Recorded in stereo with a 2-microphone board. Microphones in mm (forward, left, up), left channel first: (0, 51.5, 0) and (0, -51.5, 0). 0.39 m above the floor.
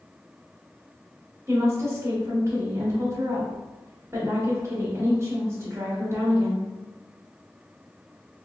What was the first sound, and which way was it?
A woman speaking, 35° right (ahead or behind).